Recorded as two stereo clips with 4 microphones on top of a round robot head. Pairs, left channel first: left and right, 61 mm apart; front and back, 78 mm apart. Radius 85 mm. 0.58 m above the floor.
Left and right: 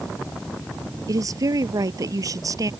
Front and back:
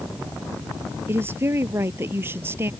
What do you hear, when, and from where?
1.1 s a woman speaking: 115° right